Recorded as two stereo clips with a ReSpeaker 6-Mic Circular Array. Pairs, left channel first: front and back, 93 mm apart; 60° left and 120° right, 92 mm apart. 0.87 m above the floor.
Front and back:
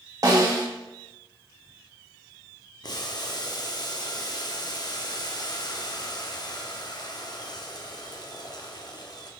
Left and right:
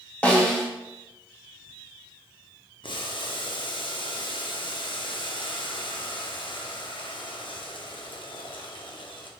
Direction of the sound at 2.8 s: 40° left.